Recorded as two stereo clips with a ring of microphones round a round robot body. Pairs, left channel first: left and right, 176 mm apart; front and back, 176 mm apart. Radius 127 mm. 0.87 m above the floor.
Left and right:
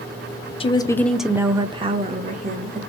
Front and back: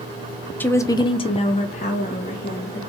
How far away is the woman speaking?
About 0.5 m.